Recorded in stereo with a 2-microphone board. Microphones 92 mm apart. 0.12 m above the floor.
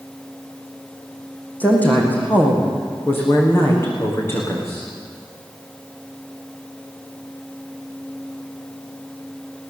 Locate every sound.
1.6 s a woman speaking: 15° left (ahead or behind), 5.5 m; by 4.9 s 30° left (ahead or behind), 8 m